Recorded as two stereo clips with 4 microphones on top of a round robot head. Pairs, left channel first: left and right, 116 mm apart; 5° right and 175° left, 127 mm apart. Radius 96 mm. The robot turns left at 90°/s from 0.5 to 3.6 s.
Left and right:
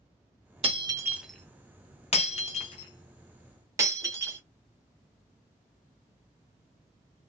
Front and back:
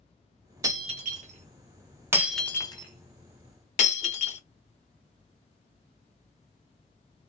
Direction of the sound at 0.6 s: 120° right.